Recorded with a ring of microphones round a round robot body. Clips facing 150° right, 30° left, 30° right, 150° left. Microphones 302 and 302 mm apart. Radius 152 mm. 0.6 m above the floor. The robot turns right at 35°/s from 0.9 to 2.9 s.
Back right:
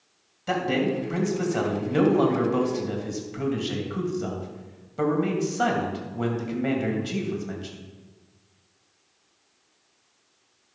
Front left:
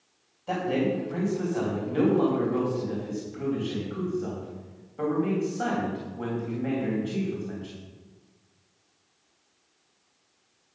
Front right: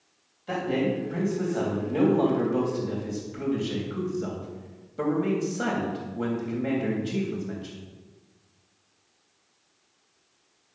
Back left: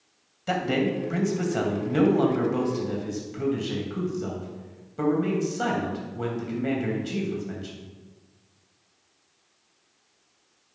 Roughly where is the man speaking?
Behind.